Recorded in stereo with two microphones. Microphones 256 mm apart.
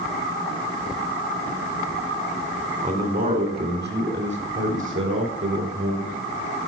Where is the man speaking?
30° right (ahead or behind), 1.9 m; by 6.2 s 60° right (ahead or behind), 3.5 m.